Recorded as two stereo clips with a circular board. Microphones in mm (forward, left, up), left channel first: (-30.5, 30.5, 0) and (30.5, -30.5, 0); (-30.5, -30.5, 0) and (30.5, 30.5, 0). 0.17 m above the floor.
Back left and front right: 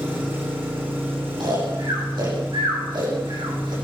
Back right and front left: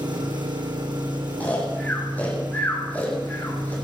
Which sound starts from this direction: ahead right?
Snoring, at 1.4 s.